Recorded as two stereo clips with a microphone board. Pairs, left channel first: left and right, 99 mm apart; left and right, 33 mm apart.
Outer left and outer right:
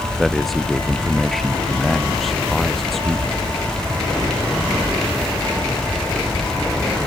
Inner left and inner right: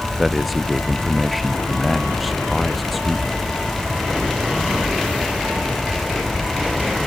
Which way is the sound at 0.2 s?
Centre (ahead or behind).